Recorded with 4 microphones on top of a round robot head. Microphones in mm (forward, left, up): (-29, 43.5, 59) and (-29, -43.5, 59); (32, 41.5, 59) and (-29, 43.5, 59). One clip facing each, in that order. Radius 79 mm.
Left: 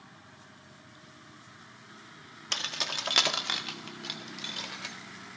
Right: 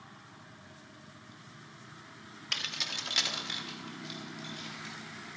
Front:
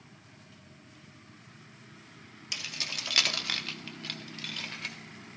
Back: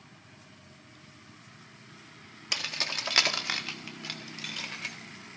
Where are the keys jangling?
150° left, 0.8 m; by 5.0 s 90° left, 1.9 m.